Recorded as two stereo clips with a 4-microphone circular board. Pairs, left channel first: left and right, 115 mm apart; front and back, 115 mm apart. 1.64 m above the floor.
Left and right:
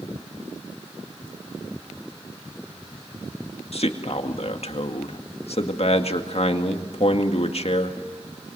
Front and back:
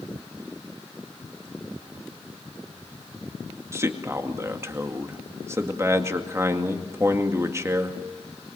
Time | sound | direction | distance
3.7 | a man speaking | 115° left | 2 m